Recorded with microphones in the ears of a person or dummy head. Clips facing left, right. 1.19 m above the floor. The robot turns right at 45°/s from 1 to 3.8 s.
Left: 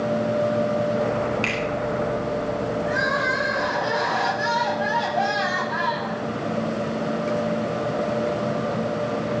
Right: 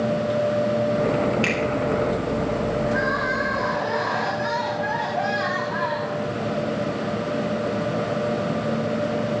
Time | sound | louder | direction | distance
1.4 | a finger snap | right 3 dB | 15° right (ahead or behind) | 4.5 m
2.9 | crying | right 1 dB | 130° left | 6 m